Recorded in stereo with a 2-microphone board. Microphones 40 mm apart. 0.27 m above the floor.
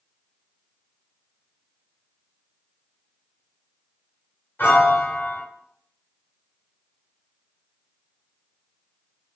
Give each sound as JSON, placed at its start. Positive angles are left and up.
{"t": 4.6, "sound": "a piano", "side_deg": 55, "distance_m": 0.9}